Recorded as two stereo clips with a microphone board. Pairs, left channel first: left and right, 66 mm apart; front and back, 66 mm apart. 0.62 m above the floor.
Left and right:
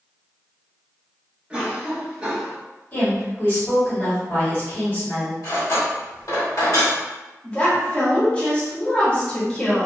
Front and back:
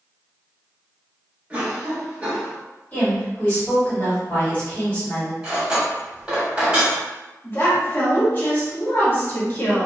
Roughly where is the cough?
Behind right.